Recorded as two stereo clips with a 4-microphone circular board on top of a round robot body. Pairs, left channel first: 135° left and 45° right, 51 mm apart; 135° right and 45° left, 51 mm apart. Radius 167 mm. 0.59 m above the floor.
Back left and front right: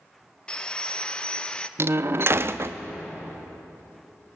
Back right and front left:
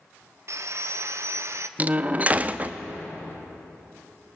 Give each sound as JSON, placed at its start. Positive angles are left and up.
{"t": 0.5, "sound": "sawing", "azimuth_deg": 65, "distance_m": 1.0}
{"t": 1.8, "sound": "a door slam", "azimuth_deg": -15, "distance_m": 0.8}